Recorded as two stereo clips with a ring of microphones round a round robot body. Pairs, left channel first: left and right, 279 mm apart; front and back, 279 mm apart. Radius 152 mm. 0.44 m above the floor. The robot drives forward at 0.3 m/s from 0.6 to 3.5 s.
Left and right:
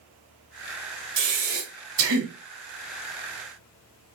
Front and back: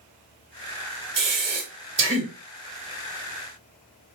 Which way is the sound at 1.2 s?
125° right.